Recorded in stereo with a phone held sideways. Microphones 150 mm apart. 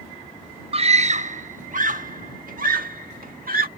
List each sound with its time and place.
0.7 s a scream: 40° right (ahead or behind); by 3.7 s 70° right (ahead or behind)